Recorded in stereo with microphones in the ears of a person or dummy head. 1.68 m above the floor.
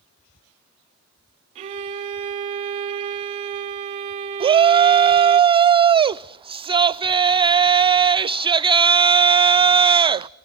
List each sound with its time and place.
1.6 s a violin: 35° right (ahead or behind), 1.8 m
4.4 s a shout: 25° right (ahead or behind), 0.5 m